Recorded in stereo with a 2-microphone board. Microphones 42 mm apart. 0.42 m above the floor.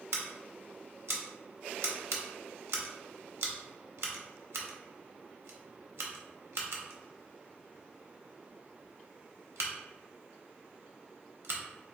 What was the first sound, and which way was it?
Scissors, 75° right (ahead or behind).